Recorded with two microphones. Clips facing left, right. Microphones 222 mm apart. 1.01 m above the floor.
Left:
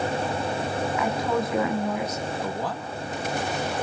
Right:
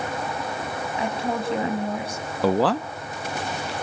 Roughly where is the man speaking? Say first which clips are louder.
Right 10 dB; right.